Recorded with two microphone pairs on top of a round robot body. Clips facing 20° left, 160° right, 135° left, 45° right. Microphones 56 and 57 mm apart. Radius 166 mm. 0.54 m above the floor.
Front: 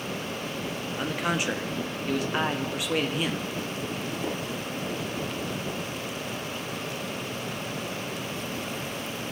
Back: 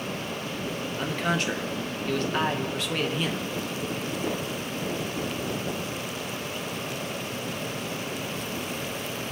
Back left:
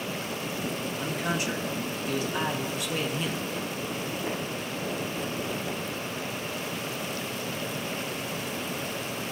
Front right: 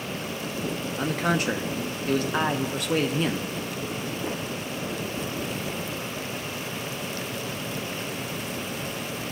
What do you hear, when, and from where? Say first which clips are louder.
1.0 s a man speaking: back 1 dB, front right 6 dB; 45° right, 1.0 m